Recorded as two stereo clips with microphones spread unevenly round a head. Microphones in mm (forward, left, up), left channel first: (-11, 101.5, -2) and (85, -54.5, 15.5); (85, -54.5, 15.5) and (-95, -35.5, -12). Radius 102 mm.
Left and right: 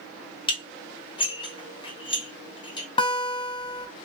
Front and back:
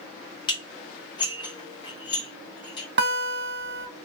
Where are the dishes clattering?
55° left, 1.1 m.